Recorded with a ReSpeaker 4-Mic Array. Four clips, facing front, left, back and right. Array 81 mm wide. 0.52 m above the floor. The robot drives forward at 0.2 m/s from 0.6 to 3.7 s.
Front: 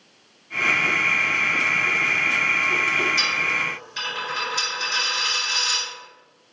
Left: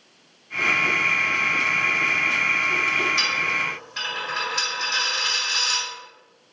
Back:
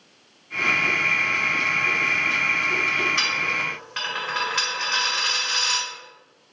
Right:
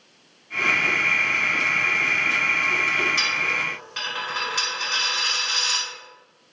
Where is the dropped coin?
165° right, 1.4 m.